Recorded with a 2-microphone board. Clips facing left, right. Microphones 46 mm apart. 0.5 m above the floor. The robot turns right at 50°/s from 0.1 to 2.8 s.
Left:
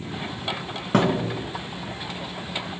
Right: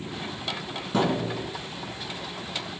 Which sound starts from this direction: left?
A thud, at 0.9 s.